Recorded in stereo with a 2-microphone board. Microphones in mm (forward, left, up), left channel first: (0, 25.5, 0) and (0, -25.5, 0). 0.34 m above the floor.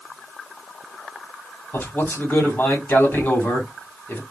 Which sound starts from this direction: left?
A man speaking, at 1.7 s.